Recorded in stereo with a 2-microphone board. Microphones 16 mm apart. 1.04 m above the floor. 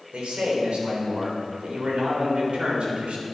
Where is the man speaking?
85° right, 3.5 m.